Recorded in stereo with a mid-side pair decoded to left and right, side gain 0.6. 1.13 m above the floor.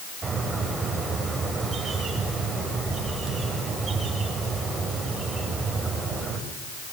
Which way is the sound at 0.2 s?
25° right.